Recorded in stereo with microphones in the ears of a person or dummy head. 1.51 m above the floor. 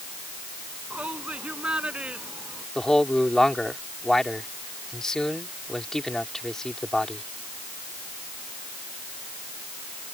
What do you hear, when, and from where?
0.9 s a shout: 10° right (ahead or behind); by 2.6 s 5° right (ahead or behind)
2.8 s a man speaking: 5° left (ahead or behind)